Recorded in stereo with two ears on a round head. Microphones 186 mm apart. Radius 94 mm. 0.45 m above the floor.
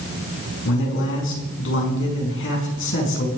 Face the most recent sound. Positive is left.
turn(degrees=65)  # may be behind; listen again after turning